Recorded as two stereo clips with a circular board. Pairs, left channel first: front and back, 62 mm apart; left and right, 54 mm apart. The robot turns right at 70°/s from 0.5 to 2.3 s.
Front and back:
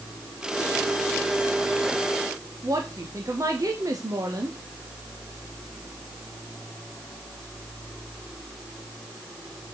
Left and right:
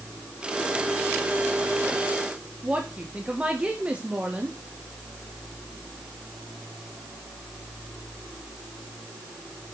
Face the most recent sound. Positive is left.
turn(degrees=-160)